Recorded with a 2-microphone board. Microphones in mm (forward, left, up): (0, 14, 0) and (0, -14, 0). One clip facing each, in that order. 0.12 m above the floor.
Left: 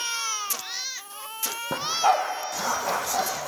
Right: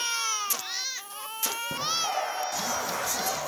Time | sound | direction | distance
1.7 | a dog barking | 60° left (ahead or behind) | 1.8 m